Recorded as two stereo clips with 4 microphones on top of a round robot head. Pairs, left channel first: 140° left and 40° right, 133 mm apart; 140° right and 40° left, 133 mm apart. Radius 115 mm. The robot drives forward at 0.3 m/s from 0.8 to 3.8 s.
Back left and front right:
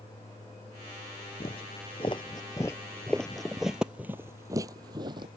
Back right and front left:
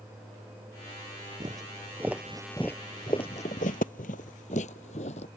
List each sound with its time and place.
1.4 s footsteps: 95° left; by 5.3 s 95° right